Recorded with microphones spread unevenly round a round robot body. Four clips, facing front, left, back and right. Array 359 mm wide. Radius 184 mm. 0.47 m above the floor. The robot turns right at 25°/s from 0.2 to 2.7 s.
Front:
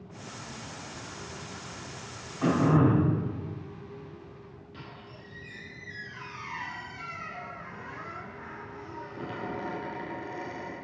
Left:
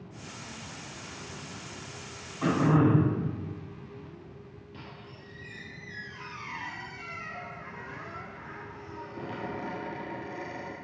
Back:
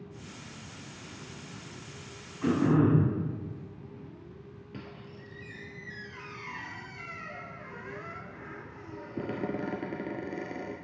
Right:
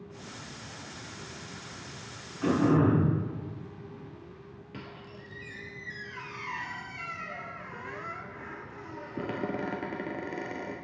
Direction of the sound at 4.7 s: 150° right.